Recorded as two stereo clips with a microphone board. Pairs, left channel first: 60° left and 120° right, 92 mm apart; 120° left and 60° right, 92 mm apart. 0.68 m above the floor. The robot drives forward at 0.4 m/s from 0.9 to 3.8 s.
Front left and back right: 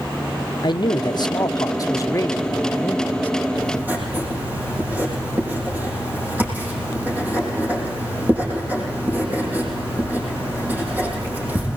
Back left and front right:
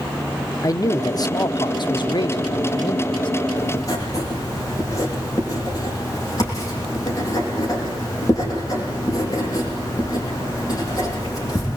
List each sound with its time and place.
0.6 s a man speaking: 80° left, 1.1 m; by 3.3 s 130° left, 1.3 m
3.6 s writing: 170° left, 7.5 m